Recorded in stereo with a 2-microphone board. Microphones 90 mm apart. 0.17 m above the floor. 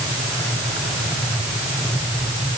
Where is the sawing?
I don't hear sawing.